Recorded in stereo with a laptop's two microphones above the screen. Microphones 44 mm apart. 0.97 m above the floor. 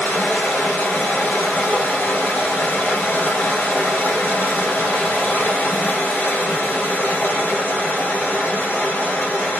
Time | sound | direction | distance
0.0 | running water | 40° left (ahead or behind) | 1.2 m